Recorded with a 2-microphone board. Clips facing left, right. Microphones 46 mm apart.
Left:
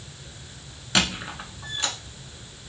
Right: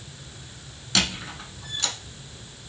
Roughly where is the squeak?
Left.